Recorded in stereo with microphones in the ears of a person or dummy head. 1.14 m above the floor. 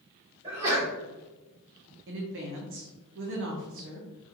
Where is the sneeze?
25° right (ahead or behind), 1.2 m.